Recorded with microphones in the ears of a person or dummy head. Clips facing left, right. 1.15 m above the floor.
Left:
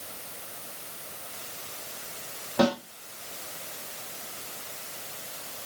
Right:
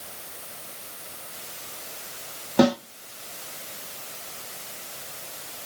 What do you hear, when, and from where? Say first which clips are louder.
2.6 s a snare drum: right 5 dB; 55° right (ahead or behind), 1.6 m